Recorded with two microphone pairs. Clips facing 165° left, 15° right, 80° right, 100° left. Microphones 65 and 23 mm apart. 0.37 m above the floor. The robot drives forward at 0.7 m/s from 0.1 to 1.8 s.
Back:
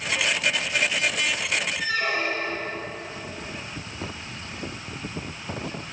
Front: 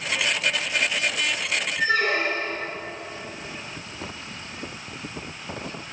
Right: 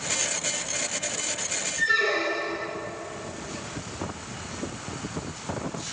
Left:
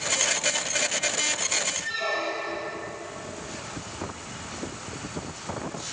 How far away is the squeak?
About 2.5 m.